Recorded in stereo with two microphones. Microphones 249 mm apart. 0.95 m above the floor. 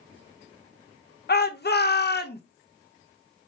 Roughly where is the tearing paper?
I don't hear tearing paper.